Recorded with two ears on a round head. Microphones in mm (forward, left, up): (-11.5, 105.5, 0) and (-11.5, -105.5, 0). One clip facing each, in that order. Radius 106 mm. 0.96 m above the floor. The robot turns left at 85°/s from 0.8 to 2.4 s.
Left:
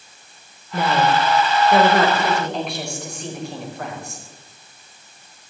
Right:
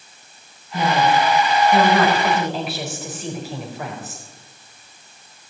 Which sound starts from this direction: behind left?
A woman speaking, at 0.7 s.